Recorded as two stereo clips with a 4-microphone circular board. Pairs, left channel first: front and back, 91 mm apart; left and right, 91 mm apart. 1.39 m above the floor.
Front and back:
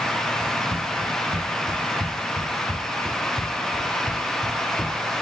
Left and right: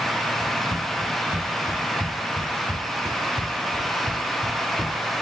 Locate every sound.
0.4 s running footsteps: 150° left, 3 m; by 5.0 s 35° right, 1.7 m